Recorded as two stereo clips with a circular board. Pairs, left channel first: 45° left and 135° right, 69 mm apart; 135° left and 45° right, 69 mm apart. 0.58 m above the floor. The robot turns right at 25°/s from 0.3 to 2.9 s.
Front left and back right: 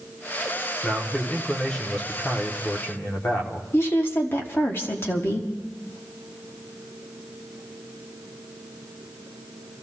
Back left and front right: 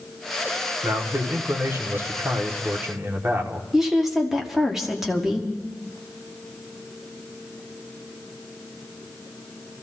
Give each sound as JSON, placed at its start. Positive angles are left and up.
{"t": 0.8, "sound": "a man speaking", "azimuth_deg": -50, "distance_m": 1.4}
{"t": 3.7, "sound": "a woman speaking", "azimuth_deg": 40, "distance_m": 1.2}